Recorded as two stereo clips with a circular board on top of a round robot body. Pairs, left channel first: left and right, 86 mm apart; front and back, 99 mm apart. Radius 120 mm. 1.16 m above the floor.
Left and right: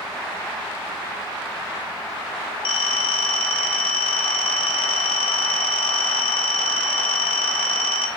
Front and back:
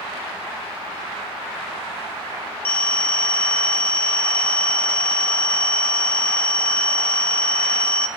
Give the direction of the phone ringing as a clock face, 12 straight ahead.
10 o'clock.